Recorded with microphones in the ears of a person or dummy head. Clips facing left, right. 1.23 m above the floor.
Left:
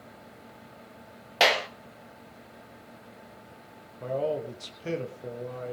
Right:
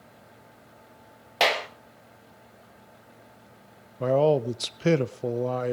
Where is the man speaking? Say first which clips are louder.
Right 8 dB; 80° right, 0.6 m.